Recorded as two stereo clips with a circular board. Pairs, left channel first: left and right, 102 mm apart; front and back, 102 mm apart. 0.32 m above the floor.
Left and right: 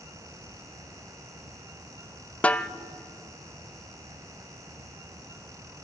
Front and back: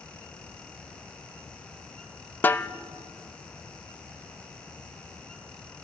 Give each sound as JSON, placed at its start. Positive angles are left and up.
{"t": 2.4, "sound": "a snare drum", "azimuth_deg": 35, "distance_m": 0.6}